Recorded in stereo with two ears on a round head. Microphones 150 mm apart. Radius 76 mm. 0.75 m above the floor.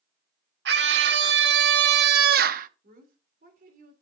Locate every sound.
0.7 s a scream: 75° right (ahead or behind), 1.7 m; by 2.7 s 50° right (ahead or behind), 0.8 m
2.8 s a woman speaking: 50° right (ahead or behind), 3 m